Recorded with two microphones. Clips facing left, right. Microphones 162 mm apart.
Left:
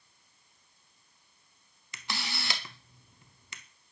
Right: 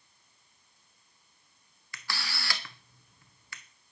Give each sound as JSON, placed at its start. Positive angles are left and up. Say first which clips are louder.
{"t": 1.9, "sound": "a camera shutter", "louder": "left 1 dB", "side_deg": 20, "distance_m": 0.6}